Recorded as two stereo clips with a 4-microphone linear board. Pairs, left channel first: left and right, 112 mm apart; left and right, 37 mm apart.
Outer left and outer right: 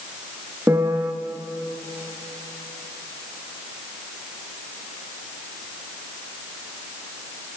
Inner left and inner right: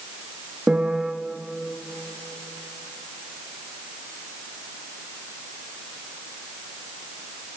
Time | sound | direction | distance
0.7 | a piano | 20° right (ahead or behind) | 2.0 m